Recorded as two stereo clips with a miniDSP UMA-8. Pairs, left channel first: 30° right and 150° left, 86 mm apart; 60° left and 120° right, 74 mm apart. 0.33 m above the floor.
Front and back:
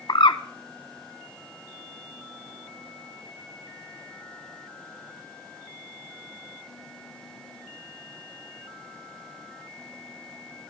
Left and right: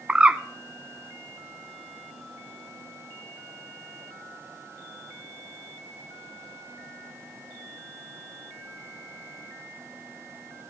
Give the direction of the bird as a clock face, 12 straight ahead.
2 o'clock.